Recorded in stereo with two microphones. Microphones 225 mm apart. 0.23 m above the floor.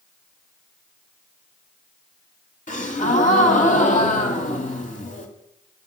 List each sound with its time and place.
2.7 s a gasp: 35° left (ahead or behind), 1.6 m